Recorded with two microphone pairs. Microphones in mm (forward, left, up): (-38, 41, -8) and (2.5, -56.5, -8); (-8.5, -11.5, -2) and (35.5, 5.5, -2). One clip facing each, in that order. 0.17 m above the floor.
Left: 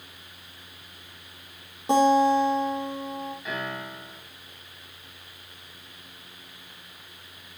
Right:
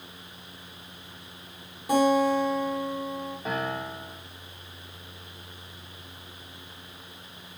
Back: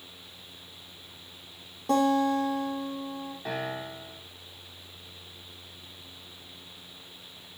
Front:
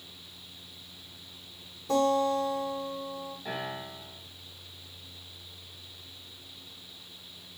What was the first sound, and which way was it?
A guitar, 175° left.